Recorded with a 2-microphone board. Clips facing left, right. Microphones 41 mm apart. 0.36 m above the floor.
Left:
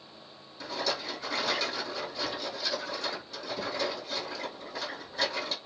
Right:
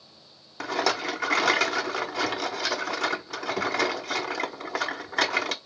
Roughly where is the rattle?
Right.